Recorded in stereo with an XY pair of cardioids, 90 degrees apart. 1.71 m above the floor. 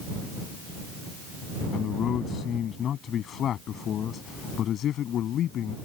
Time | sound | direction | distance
1.7 | a man speaking | 65° left | ?